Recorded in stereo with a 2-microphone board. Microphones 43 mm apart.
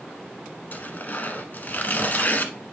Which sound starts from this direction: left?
Tearing paper, at 0.7 s.